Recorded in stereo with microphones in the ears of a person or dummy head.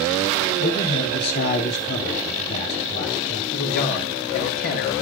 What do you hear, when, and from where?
0.6 s a man speaking: 55° left (ahead or behind), 4 m
3.5 s a man speaking: 55° left (ahead or behind), 7 m